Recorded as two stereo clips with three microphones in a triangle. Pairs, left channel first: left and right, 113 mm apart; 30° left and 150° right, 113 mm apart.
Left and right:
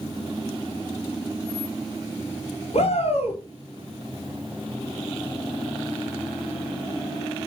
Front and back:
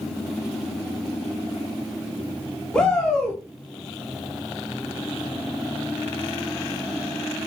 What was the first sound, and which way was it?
A shout, 115° left.